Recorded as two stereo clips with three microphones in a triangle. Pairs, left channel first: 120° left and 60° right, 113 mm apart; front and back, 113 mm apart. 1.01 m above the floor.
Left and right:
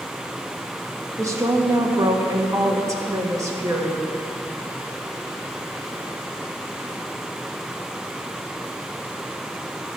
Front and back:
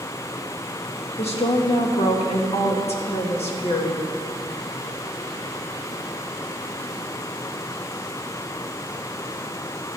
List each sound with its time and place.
1.2 s a woman speaking: straight ahead, 1.6 m